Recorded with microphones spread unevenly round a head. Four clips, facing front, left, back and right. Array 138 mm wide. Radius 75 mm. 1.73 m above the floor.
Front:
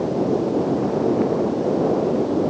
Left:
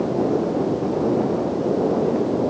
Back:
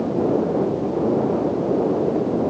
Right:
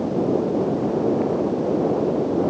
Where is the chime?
I don't hear a chime.